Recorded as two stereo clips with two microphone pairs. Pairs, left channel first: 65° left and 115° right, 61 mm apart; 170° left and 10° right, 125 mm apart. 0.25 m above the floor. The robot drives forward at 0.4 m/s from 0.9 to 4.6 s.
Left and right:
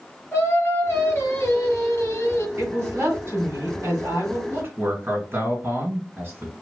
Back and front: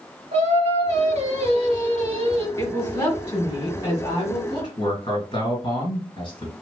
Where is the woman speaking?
140° right, 2.0 m; by 4.4 s 155° right, 2.5 m.